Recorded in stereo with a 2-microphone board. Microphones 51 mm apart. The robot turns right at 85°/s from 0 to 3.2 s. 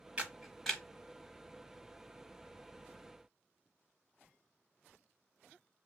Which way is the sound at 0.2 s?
25° right (ahead or behind).